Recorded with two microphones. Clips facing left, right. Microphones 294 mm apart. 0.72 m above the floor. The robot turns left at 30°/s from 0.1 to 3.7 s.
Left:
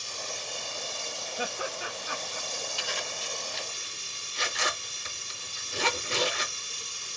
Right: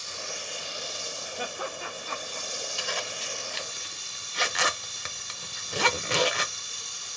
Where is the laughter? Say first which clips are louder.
Left 1 dB; 5° left (ahead or behind), 1.0 m; by 2.4 s 15° left (ahead or behind), 1.0 m.